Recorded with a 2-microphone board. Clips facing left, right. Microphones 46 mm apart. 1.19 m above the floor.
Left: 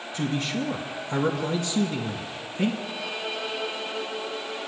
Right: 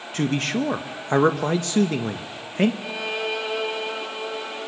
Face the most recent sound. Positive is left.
turn(degrees=-70)  # may be behind; listen again after turning